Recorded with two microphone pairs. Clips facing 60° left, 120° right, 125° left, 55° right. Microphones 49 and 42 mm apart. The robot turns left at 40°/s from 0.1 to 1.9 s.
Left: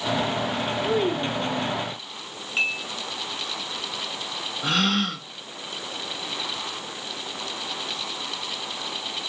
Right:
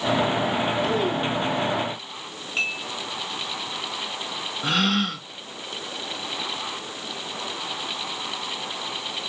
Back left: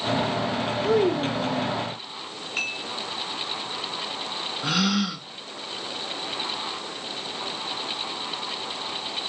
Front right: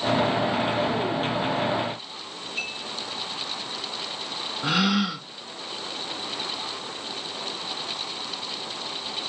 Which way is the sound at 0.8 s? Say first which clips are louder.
Even, back left 4 dB; 145° left.